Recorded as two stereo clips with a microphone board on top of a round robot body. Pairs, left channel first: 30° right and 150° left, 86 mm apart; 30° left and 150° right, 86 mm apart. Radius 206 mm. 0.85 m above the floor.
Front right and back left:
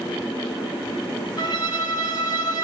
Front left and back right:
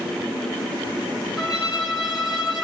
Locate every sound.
1.4 s a violin: 60° right, 1.4 m